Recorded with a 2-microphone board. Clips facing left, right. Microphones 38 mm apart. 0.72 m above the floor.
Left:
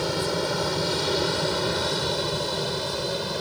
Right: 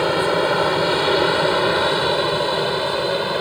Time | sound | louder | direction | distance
0.0 | an aircraft | right 8 dB | 40° right (ahead or behind) | ?